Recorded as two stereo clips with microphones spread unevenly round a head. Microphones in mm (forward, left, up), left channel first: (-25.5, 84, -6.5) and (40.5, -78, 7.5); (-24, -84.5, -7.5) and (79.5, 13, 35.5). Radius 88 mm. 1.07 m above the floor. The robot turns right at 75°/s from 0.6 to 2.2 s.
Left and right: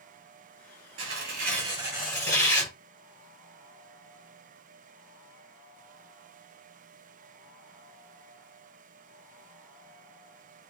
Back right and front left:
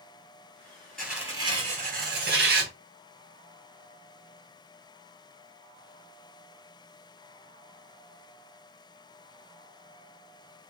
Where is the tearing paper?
60° right, 2.5 m; by 2.7 s 35° left, 2.5 m.